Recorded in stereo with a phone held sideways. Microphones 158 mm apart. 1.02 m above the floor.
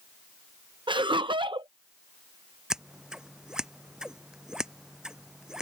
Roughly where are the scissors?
Centre.